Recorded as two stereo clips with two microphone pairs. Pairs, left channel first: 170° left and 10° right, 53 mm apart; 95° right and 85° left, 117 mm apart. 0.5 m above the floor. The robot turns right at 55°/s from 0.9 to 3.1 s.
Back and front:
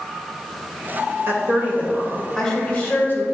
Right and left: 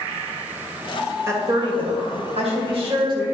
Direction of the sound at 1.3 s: 25° left.